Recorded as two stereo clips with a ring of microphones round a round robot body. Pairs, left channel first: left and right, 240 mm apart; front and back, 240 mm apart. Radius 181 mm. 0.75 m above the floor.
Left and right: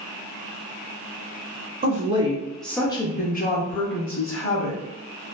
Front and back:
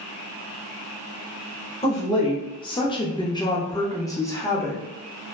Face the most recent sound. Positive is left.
turn(degrees=80)